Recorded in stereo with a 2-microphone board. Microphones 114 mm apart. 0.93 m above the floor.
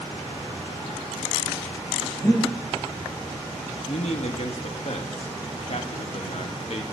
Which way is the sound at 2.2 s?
15° left (ahead or behind).